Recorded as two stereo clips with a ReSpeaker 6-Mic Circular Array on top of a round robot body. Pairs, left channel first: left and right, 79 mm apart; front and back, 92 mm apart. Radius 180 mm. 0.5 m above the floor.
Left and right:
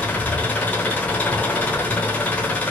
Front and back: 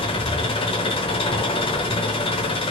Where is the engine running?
20° left, 0.8 m.